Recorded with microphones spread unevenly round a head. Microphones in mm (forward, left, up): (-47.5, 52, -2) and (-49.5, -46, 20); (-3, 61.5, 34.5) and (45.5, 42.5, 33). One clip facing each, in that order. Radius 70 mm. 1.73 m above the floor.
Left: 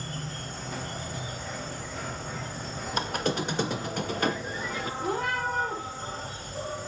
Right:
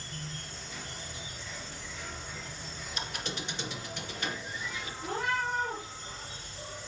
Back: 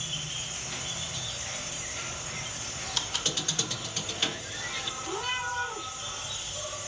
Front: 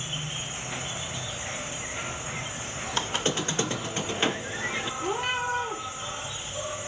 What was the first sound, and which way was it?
An insect, 45° left.